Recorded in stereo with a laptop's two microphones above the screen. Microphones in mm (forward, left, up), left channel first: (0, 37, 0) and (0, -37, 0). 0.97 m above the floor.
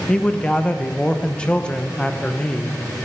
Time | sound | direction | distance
0.1 | a man speaking | 15° left (ahead or behind) | 0.9 m